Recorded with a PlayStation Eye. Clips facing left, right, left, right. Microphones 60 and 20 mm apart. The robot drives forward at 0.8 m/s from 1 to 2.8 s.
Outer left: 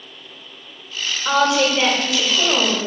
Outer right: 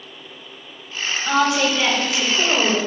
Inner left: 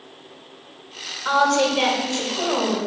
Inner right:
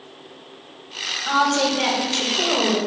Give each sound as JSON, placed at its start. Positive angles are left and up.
{"t": 1.2, "sound": "a woman speaking", "side_deg": 65, "distance_m": 2.5}